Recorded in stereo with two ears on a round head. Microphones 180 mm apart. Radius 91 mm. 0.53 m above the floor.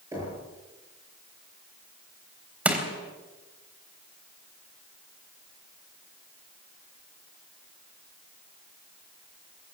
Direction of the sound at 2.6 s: 5° right (ahead or behind).